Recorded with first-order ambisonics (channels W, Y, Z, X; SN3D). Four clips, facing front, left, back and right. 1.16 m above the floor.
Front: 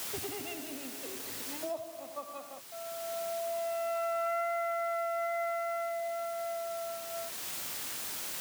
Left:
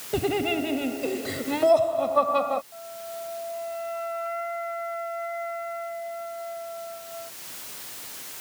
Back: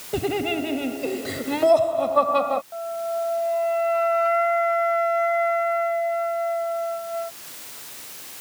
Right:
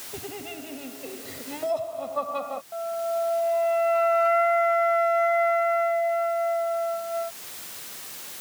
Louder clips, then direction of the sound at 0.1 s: Left 13 dB, back 18 dB; 140° left.